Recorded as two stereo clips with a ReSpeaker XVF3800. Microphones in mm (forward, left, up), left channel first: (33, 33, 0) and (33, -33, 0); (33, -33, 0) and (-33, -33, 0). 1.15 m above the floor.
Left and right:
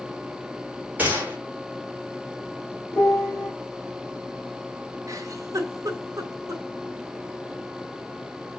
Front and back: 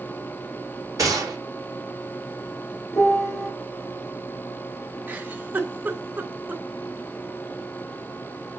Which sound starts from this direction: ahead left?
A piano, at 2.9 s.